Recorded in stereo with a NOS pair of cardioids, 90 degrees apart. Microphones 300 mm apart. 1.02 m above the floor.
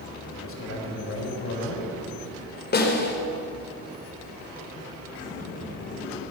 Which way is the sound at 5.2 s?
25° left.